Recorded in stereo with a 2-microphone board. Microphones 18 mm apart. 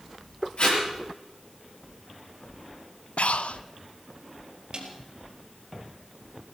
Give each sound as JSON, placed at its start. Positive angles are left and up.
{"t": 0.6, "sound": "tape being pulled", "side_deg": 55, "distance_m": 7.5}
{"t": 3.2, "sound": "breathing", "side_deg": 70, "distance_m": 0.6}
{"t": 4.7, "sound": "a snare drum", "side_deg": -45, "distance_m": 4.0}